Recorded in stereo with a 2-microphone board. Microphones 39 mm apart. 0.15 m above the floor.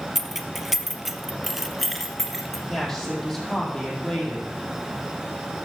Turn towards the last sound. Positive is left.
turn(degrees=15)  # may be behind; listen again after turning